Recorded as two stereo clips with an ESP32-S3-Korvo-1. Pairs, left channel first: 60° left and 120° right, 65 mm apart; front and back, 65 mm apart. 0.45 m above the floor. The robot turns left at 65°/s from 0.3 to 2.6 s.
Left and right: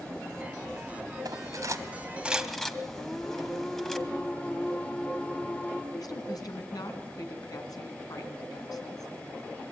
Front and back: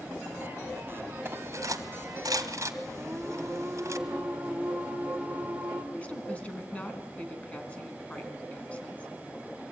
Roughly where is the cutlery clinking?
Behind right.